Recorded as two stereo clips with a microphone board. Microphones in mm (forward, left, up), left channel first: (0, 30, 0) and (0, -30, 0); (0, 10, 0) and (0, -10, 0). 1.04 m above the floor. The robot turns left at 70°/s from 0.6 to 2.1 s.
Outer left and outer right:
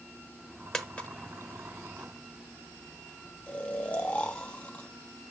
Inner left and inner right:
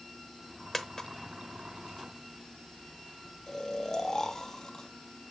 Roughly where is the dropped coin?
Centre.